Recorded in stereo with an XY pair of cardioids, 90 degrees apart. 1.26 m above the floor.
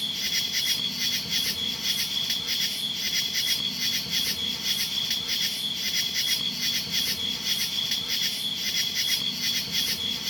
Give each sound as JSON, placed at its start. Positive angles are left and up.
{"t": 0.0, "sound": "an insect", "azimuth_deg": 5}